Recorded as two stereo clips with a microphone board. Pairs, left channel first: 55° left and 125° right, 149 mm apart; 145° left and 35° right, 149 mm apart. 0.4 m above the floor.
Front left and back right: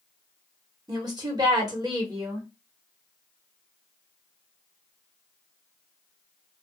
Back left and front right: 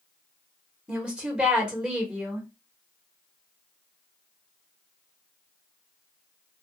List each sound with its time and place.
0.9 s a woman speaking: 110° right, 0.9 m